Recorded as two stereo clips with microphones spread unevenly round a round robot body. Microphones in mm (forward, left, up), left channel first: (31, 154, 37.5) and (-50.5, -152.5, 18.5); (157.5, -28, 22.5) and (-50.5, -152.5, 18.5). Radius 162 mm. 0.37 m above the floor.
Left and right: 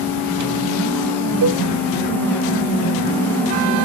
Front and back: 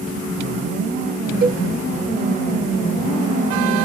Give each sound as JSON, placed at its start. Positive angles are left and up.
{"t": 1.4, "sound": "a cowbell", "azimuth_deg": -105, "distance_m": 0.6}